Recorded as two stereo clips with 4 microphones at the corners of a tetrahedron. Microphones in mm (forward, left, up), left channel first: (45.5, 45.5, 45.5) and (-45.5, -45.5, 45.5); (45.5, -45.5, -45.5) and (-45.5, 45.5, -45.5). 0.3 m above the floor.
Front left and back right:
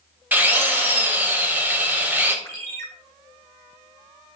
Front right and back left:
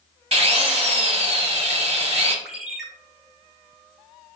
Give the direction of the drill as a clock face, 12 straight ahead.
7 o'clock.